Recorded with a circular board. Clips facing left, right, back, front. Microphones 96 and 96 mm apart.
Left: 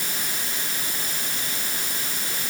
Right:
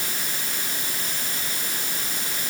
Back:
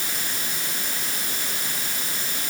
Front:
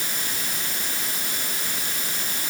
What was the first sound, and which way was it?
Only background noise.